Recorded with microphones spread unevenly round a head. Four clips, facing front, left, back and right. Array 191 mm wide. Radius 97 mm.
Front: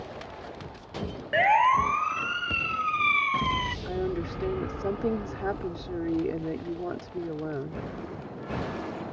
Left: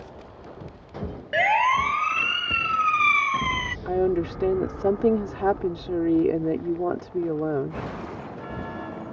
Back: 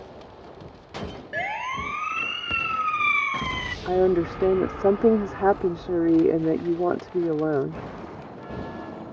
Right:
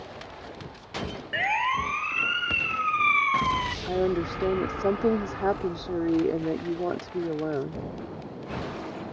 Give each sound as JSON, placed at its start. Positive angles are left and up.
{"t": 1.3, "sound": "a siren", "azimuth_deg": 40}
{"t": 3.9, "sound": "a woman speaking", "azimuth_deg": 175}